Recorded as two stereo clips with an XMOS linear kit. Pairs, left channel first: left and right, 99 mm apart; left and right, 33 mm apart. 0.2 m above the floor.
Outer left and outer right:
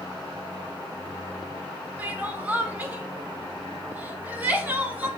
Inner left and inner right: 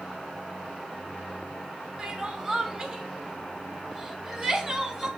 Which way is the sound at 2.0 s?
15° right (ahead or behind).